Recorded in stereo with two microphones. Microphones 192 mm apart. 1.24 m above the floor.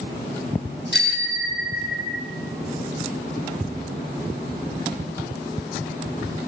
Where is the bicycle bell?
60° left (ahead or behind), 3.5 m; by 2.2 s 50° left (ahead or behind), 5 m.